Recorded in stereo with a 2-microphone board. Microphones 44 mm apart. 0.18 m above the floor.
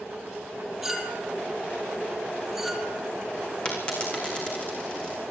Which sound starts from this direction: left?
A dropped coin, at 3.6 s.